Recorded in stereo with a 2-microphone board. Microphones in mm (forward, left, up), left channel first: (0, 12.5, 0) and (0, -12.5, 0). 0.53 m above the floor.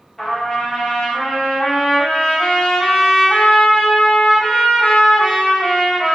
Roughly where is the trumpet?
Centre.